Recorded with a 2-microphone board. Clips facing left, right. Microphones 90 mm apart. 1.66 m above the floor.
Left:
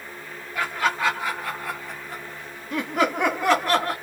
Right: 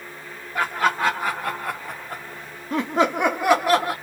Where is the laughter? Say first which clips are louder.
Right 3 dB; 45° right (ahead or behind), 1.2 m; by 3.9 s 5° right (ahead or behind), 1.0 m.